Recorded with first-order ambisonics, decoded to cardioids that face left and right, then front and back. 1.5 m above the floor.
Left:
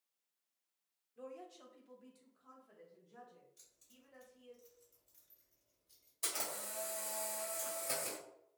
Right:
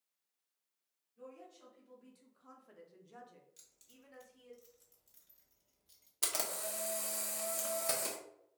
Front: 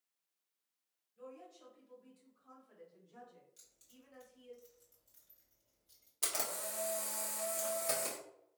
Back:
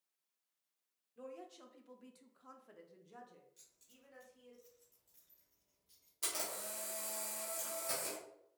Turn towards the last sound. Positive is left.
turn(degrees=-70)